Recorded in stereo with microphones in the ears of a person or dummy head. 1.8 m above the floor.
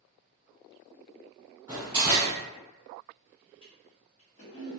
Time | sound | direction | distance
1.7 | a door slam | 10° right (ahead or behind) | 0.8 m
3.6 | a toilet flushing | 25° left (ahead or behind) | 0.8 m